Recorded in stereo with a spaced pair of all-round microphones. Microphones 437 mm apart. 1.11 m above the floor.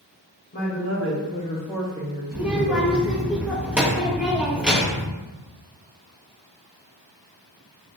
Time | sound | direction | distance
0.5 | a woman speaking | 40° left (ahead or behind) | 0.8 m
2.3 | a child speaking | 5° right (ahead or behind) | 0.6 m